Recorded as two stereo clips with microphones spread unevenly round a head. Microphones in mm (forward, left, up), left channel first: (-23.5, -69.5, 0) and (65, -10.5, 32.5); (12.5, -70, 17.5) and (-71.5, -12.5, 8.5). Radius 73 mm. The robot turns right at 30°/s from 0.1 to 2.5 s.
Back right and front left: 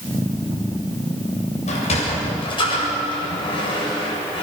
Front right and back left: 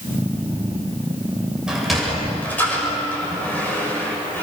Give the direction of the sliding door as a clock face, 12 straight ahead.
4 o'clock.